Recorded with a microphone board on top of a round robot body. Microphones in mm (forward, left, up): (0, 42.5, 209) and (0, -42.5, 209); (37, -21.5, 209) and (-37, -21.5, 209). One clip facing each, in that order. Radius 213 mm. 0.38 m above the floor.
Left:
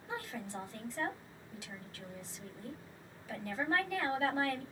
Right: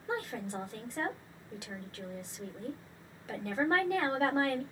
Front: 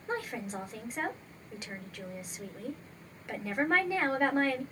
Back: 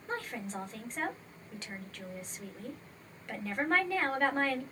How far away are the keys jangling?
No keys jangling in this recording.